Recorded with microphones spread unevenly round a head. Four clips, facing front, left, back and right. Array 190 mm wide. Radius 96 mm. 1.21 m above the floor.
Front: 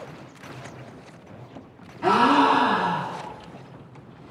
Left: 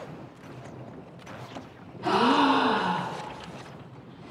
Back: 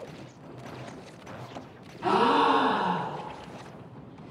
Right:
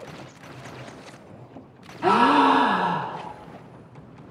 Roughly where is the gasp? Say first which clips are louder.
Right 5 dB, front 4 dB; ahead right.